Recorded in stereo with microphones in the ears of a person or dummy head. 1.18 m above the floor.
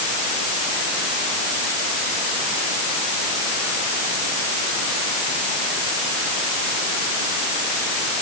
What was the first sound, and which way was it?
Only background noise.